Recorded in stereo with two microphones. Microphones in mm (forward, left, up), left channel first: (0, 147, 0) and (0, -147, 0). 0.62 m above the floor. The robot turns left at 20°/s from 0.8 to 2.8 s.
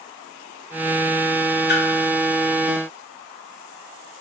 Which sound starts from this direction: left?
A splash, at 1.7 s.